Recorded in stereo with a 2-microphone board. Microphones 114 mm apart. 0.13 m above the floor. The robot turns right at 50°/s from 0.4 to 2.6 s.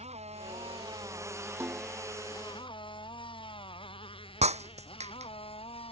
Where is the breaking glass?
75° right (ahead or behind).